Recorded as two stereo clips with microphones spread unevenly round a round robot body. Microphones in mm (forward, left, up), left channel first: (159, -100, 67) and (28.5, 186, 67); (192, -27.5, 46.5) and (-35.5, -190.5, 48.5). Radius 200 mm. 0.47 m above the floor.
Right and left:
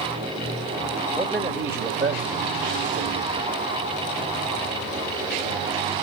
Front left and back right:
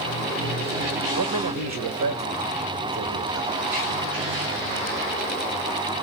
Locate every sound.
1.2 s a man speaking: 155° right, 2 m; by 3.5 s 175° left, 2.5 m